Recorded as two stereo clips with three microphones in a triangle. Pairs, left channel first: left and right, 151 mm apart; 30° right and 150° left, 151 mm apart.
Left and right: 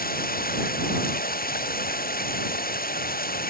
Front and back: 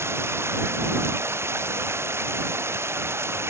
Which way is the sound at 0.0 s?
75° left.